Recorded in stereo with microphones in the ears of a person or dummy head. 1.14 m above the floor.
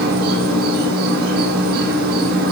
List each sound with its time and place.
0.0 s an insect: 60° right (ahead or behind), 9.5 m